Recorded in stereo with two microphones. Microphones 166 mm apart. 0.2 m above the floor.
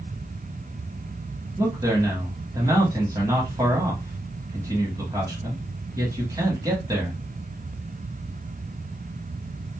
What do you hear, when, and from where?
1.6 s a man speaking: 20° right (ahead or behind), 1.0 m